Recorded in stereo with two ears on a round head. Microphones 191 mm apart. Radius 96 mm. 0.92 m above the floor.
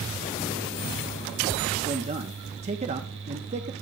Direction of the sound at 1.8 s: 30° right (ahead or behind).